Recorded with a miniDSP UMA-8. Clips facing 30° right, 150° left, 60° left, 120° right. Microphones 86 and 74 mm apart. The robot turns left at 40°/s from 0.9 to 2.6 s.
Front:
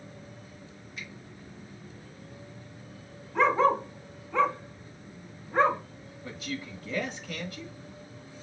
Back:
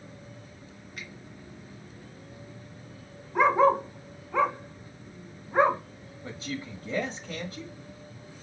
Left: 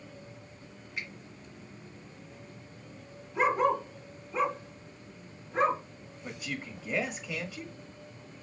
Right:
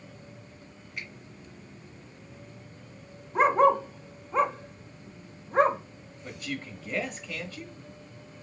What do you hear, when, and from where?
1.0 s a finger snap: 150° left, 2 m; by 1.1 s 145° left, 2 m
3.4 s a dog barking: 135° right, 0.7 m
6.2 s a man speaking: 135° left, 1.1 m